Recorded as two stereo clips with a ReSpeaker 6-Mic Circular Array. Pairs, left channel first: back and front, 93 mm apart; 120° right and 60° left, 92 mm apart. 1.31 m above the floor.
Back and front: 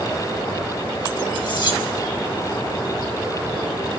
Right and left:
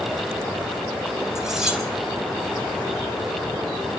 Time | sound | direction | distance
1.4 | cutlery clinking | 145° left | 5 m